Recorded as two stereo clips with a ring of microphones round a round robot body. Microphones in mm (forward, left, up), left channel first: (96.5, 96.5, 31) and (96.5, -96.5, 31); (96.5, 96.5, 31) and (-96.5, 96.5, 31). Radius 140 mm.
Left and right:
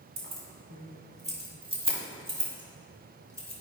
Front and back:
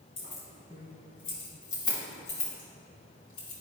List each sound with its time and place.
0.2 s keys jangling: 55° right, 2.5 m; by 3.5 s 15° right, 4 m